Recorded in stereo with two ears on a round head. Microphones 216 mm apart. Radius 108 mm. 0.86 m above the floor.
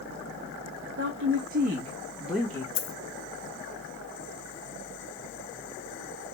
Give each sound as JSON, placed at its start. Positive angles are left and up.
{"t": 1.0, "sound": "a woman speaking", "side_deg": -55, "distance_m": 1.4}
{"t": 2.8, "sound": "a dropped coin", "side_deg": 75, "distance_m": 1.1}